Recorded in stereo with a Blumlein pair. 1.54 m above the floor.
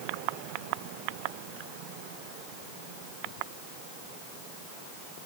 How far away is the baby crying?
I don't hear a baby crying.